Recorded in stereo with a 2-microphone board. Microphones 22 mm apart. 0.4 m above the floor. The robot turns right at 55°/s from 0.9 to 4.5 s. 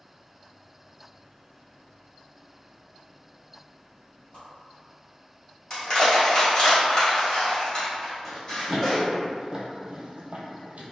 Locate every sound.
4.3 s a whoosh: 50° left (ahead or behind), 1.8 m; by 4.5 s 40° left (ahead or behind), 1.8 m
5.7 s crushing: 30° left (ahead or behind), 1.6 m
8.2 s running footsteps: 5° right (ahead or behind), 1.4 m; by 10.8 s 60° right (ahead or behind), 0.7 m